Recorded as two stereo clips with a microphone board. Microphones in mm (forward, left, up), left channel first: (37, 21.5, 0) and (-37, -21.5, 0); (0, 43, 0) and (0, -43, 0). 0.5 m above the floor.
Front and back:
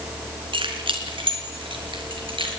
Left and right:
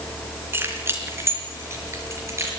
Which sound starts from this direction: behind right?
Keys jangling, at 0.5 s.